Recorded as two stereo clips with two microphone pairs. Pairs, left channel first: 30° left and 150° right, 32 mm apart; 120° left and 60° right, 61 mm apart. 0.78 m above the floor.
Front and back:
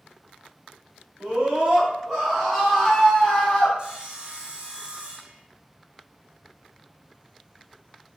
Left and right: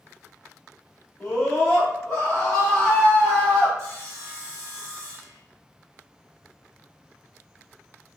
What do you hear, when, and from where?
1.2 s a scream: 170° right, 1.1 m; by 3.7 s 60° left, 1.0 m
3.8 s sawing: 95° right, 0.9 m